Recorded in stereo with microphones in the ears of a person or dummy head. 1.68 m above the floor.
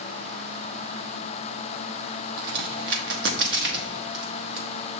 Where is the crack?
65° right (ahead or behind), 0.8 m.